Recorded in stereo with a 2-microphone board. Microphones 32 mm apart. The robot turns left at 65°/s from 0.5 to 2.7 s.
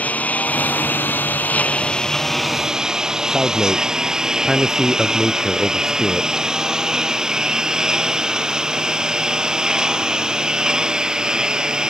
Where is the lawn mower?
50° left (ahead or behind); by 11.9 s 20° right (ahead or behind).